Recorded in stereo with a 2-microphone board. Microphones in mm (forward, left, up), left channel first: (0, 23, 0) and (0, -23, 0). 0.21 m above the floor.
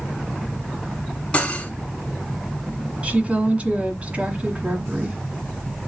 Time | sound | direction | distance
1.3 | cutlery clinking | 30° left (ahead or behind) | 1.1 m
3.0 | a woman speaking | 30° right (ahead or behind) | 1.4 m